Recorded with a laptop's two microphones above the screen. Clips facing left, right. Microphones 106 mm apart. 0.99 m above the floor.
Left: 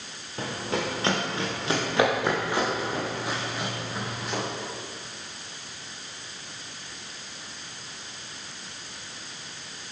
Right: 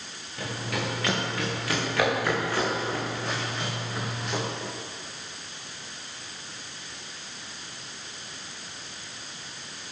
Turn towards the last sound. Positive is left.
turn(degrees=0)  # may be behind; listen again after turning